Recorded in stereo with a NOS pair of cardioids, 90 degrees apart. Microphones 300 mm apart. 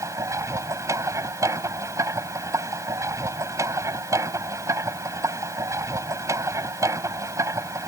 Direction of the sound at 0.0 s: 10° right.